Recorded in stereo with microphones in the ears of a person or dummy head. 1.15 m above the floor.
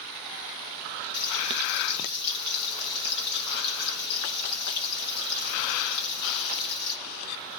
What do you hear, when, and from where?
1.1 s frying: 65° left (ahead or behind), 8 m